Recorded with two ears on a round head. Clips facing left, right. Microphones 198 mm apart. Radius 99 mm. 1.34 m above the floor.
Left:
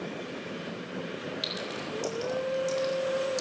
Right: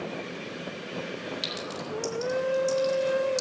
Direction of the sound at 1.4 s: 5° right (ahead or behind).